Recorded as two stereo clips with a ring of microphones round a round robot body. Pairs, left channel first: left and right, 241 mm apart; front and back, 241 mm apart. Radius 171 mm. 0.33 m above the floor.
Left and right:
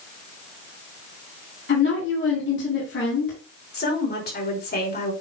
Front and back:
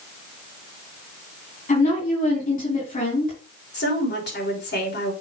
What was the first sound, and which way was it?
A woman speaking, 55° left.